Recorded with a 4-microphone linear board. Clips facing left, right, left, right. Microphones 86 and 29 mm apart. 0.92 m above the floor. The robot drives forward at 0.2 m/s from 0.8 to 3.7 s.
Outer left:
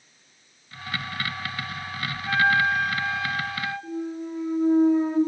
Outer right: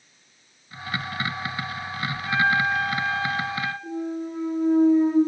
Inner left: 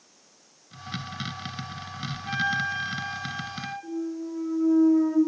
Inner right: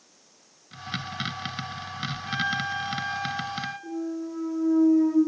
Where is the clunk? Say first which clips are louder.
Outer right 2 dB, even; 10° left (ahead or behind), 1.7 m.